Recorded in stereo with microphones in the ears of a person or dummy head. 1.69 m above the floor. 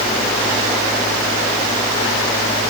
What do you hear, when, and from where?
Only background noise.